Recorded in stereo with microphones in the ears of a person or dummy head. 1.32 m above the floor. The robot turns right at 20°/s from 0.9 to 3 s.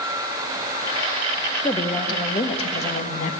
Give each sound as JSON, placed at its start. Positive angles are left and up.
{"t": 1.6, "sound": "a woman speaking", "side_deg": 20, "distance_m": 1.5}